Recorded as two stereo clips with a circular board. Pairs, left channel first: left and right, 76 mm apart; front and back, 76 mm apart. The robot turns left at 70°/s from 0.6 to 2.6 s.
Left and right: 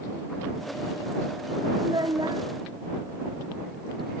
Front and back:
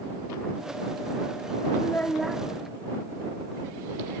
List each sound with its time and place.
1.8 s a child speaking: 55° right; by 2.4 s 100° right